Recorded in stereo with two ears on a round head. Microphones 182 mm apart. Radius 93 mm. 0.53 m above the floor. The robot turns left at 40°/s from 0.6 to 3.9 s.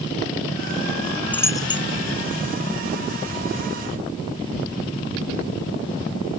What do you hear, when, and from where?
1.3 s a dropped coin: 10° left (ahead or behind); by 1.9 s 30° left (ahead or behind)